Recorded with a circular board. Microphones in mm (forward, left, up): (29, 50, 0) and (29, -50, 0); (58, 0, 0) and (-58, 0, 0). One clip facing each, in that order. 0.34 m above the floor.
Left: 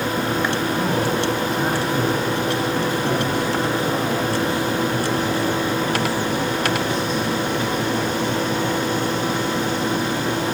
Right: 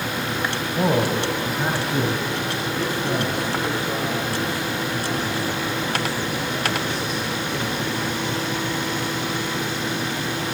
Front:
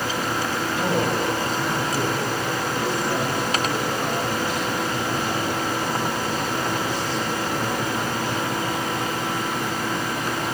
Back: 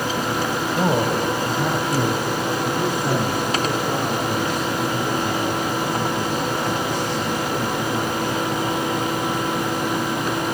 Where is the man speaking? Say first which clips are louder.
Right 4 dB, back 3 dB; 145° right, 2 m; by 8.3 s 130° left, 8 m.